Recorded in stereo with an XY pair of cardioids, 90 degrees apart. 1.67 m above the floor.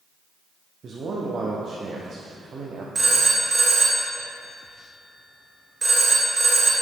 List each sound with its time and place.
0.8 s a man speaking: 55° right, 0.9 m
3.0 s a phone ringing: 30° right, 1.9 m